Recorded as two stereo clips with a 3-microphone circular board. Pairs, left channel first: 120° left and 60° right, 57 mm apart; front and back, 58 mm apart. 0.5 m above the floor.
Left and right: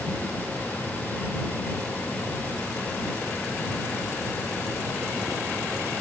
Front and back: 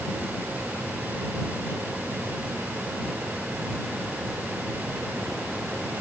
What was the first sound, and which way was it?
Only background noise.